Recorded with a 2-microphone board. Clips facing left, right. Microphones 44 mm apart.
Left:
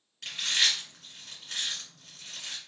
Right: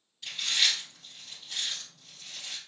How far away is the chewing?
About 1.6 m.